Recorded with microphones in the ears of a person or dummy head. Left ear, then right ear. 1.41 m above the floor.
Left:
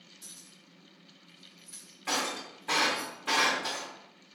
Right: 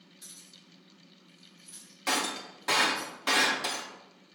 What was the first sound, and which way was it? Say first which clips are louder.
Keys jangling: right 2 dB; 10° right (ahead or behind).